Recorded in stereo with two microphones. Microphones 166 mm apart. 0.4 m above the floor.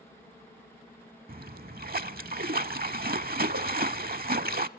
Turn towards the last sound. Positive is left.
turn(degrees=-65)  # may be behind; listen again after turning